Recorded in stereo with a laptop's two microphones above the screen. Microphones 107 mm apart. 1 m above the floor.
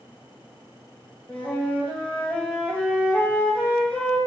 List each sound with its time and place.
1.3 s a flute: 15° left (ahead or behind), 1.3 m